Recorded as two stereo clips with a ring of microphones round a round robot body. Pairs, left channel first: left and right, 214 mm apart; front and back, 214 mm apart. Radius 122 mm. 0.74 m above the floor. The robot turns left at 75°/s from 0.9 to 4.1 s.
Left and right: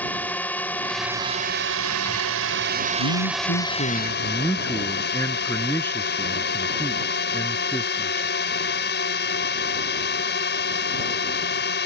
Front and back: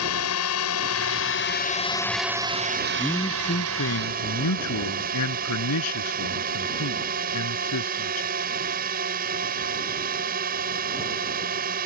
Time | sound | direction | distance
0.0 | a drone | 5° left | ?
3.0 | a man speaking | 95° left | ?